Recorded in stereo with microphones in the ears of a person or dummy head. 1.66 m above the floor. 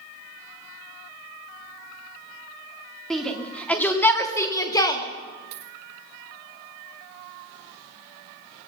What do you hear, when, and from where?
3.1 s a shout: centre (ahead or behind), 3 m; by 5.0 s 25° left (ahead or behind), 2.5 m
5.5 s a dropped coin: 30° right (ahead or behind), 2.5 m